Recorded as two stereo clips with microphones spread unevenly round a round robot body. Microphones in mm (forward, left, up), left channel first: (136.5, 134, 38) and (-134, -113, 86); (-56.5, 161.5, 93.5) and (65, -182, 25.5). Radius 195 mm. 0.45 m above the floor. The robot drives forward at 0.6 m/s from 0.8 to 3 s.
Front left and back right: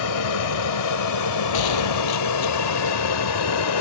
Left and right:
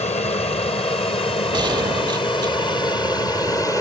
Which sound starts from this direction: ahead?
A gunshot, at 1.5 s.